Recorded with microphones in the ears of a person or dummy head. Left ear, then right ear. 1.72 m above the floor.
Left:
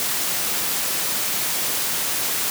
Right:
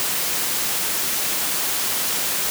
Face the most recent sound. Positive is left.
No sound to turn to.